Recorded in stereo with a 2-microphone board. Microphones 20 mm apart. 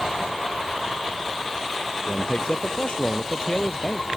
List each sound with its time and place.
2.1 s a man speaking: 35° left (ahead or behind)